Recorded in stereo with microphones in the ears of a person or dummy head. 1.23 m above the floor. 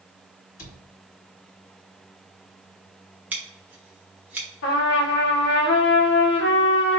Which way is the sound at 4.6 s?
45° left (ahead or behind).